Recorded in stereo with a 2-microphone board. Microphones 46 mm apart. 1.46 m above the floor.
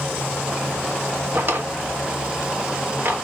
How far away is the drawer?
About 1.0 m.